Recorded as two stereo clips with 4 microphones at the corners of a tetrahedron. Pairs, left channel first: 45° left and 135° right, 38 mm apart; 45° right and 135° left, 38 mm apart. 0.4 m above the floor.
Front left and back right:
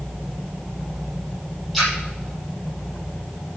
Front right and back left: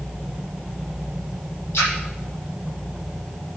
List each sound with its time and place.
1.7 s a splash: 45° right, 6.5 m